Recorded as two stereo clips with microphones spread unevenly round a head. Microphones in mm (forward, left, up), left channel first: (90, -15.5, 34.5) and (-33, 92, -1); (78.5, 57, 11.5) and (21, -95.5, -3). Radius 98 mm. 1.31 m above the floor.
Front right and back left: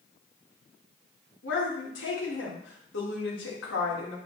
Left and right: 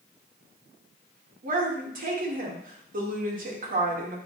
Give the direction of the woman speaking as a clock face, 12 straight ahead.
3 o'clock.